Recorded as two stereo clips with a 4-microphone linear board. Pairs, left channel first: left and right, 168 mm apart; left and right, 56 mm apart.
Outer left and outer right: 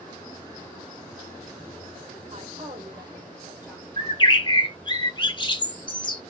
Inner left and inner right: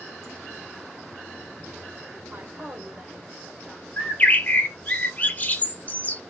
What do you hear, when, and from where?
2.3 s a woman speaking: 45° right (ahead or behind), 1.1 m; by 3.9 s 10° right (ahead or behind), 2.0 m
4.0 s a bird: 30° left (ahead or behind), 0.7 m